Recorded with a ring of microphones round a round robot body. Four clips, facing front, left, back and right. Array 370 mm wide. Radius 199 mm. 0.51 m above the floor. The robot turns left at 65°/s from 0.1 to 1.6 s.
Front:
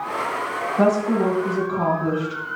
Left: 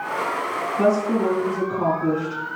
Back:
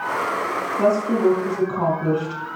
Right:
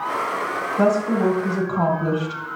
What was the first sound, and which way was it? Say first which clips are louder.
A woman speaking: right 1 dB, even; 35° right.